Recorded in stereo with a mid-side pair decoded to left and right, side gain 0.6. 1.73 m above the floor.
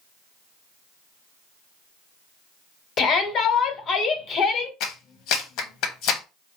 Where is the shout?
45° left, 1.2 m.